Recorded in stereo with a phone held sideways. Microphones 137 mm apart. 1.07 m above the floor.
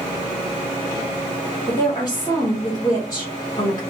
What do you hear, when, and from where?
1.7 s a woman speaking: 30° left (ahead or behind), 1.2 m